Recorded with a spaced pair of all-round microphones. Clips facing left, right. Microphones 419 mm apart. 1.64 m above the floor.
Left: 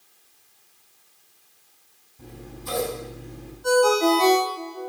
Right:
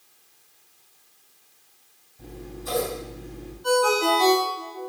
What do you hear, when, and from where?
2.2 s scissors: 20° left (ahead or behind), 3 m
3.6 s a ringtone: 65° left (ahead or behind), 1.8 m